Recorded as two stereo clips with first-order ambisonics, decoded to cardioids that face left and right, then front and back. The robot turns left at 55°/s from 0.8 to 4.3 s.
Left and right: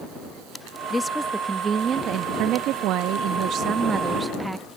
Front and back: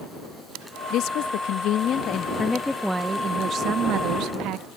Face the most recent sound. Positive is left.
turn(degrees=-170)